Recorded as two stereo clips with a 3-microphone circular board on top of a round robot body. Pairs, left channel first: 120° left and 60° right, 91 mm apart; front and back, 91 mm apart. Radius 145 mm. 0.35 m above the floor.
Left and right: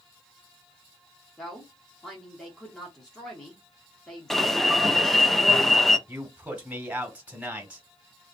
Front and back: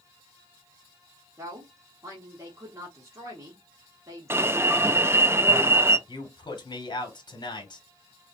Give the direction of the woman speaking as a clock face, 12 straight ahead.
5 o'clock.